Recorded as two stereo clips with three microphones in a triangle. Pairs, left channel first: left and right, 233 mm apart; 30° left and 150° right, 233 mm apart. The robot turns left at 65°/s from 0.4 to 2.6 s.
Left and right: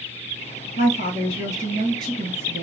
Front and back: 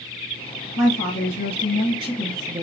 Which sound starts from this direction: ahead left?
A woman speaking, at 0.8 s.